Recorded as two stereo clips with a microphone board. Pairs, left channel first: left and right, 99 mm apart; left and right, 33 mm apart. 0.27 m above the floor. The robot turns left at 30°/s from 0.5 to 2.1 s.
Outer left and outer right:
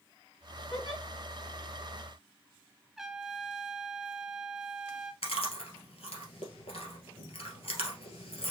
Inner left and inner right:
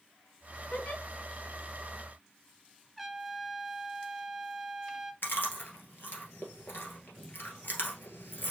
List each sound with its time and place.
0.7 s a giggle: 50° left (ahead or behind), 3 m; by 1.0 s 55° left (ahead or behind), 3 m
3.0 s a trumpet: 5° right (ahead or behind), 0.6 m
5.2 s chewing: 85° left, 1.8 m